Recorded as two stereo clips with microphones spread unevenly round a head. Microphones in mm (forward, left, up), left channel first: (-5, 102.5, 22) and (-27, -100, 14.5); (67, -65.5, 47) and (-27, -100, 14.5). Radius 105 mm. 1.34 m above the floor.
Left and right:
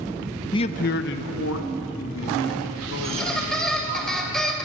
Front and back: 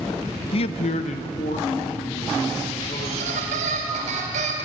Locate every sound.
0.5 s a man speaking: 10° left, 0.6 m; by 4.0 s 65° left, 5 m
3.0 s a squeak: 170° left, 2.5 m